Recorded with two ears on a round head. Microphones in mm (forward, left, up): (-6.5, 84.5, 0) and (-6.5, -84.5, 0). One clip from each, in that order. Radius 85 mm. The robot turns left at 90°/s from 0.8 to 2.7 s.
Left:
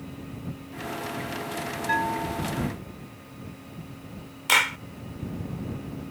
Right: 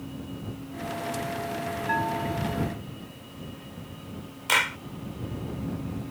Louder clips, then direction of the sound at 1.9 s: Left 2 dB; 160° left.